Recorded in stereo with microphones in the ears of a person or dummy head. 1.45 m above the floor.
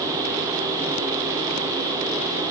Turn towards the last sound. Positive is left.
No sound to turn to.